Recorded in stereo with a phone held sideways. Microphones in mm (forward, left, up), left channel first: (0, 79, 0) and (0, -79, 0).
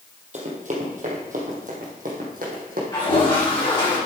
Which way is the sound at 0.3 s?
50° right (ahead or behind).